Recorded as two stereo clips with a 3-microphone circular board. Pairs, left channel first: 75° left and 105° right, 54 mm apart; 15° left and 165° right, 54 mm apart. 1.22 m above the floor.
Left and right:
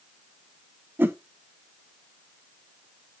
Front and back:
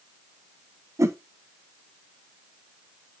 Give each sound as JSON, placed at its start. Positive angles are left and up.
{"t": 1.0, "sound": "a whoosh", "azimuth_deg": -155, "distance_m": 0.8}